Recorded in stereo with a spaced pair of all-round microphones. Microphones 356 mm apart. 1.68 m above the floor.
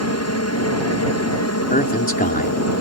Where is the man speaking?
25° left (ahead or behind).